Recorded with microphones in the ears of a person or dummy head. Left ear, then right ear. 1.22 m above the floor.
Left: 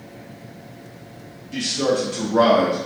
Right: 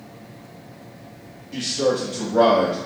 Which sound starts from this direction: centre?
A man speaking, at 1.5 s.